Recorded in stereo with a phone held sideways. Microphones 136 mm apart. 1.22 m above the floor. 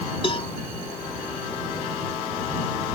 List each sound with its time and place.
0.2 s a cowbell: 45° left (ahead or behind)